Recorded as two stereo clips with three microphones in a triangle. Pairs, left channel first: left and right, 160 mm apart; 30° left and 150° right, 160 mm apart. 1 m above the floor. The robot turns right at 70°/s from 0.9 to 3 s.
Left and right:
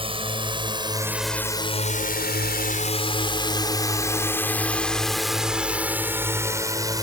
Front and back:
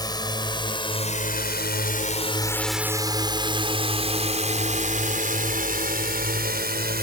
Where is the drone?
35° right; by 7.0 s 155° right.